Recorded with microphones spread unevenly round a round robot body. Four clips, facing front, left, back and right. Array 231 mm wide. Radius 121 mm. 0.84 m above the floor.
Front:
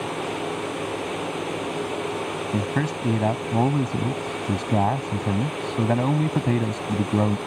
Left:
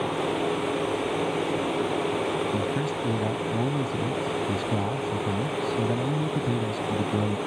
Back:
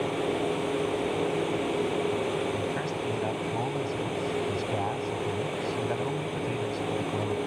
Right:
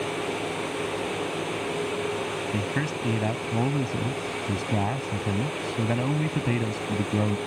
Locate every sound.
2.5 s a man speaking: 5° right